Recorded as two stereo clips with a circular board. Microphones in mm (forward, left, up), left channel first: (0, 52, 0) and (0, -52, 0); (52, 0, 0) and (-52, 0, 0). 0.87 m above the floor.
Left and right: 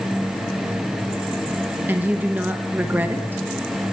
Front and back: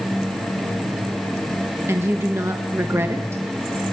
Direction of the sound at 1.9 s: 145° right.